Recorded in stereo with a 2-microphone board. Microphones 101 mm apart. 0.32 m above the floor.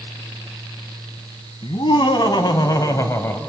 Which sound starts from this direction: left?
Laughter, at 1.6 s.